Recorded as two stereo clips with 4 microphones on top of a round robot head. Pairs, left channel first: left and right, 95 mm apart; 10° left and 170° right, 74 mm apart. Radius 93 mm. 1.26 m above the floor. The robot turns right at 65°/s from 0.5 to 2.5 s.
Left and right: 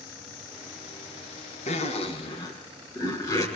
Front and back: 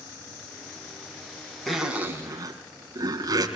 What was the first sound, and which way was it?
A zipper, 95° left.